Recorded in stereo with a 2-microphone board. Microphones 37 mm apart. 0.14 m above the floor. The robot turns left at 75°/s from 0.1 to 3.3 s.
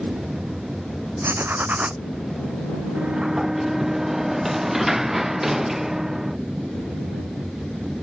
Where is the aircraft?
130° right; by 8.0 s 10° right.